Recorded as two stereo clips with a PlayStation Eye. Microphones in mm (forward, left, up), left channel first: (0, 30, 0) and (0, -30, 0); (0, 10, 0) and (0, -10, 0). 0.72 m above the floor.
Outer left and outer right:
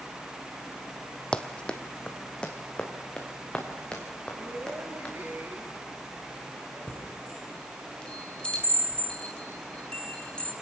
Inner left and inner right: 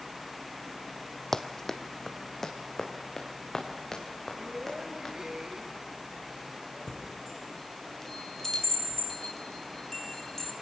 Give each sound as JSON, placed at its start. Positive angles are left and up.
{"t": 1.3, "sound": "running footsteps", "side_deg": 15, "distance_m": 1.2}
{"t": 4.3, "sound": "a woman speaking", "side_deg": -40, "distance_m": 4.5}
{"t": 6.9, "sound": "a chime", "side_deg": 15, "distance_m": 3.5}